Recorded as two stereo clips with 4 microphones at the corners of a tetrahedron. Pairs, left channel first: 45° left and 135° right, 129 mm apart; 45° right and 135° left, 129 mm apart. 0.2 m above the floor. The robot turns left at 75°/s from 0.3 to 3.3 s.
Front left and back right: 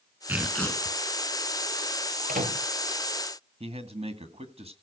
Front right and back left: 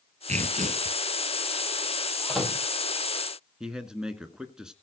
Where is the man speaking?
140° right, 1.9 m.